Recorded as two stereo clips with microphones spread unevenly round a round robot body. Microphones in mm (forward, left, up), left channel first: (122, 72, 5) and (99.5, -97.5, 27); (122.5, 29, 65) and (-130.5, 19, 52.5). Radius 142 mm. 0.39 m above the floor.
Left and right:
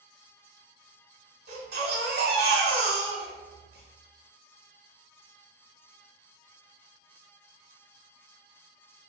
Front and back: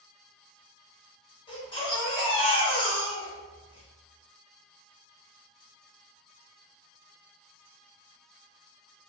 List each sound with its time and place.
1.5 s a baby crying: 70° right, 1.1 m